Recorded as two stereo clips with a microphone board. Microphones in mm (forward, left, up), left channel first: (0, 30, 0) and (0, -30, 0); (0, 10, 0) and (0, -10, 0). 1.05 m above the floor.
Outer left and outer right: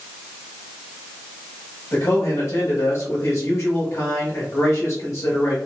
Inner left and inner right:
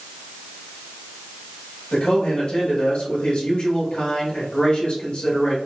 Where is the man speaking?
60° left (ahead or behind), 1.5 m.